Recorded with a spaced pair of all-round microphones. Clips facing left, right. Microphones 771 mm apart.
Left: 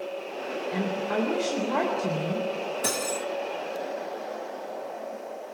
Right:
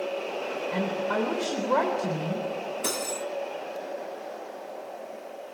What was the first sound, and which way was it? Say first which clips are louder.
A woman speaking: even; 5° right (ahead or behind).